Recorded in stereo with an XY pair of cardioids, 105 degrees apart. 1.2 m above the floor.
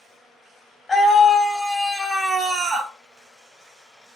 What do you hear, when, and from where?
0.9 s a scream: 15° left, 1.7 m; by 2.9 s 60° right, 1.1 m